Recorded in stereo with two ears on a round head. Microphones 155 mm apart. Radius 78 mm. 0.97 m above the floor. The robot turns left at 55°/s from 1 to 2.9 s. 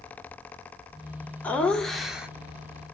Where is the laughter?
10° left (ahead or behind), 0.5 m; by 2.3 s 5° right (ahead or behind), 0.5 m.